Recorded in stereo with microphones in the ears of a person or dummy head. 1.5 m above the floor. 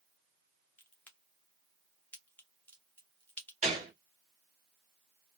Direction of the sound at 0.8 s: 5° left (ahead or behind).